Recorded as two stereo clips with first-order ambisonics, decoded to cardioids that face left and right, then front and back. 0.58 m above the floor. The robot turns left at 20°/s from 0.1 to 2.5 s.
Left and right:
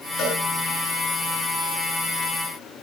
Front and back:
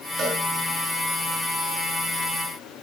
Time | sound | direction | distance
0.2 | a cowbell | 125° left | 10 m